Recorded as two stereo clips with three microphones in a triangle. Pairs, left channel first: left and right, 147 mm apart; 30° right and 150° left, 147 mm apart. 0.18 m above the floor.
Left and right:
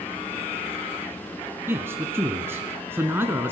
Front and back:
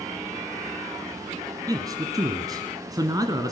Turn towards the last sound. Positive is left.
turn(degrees=-155)